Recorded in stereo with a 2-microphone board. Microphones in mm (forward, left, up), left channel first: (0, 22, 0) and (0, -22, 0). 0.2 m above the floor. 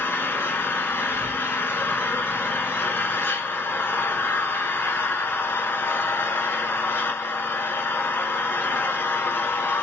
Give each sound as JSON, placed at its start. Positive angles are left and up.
{"t": 0.0, "sound": "an engine running", "side_deg": 60, "distance_m": 0.9}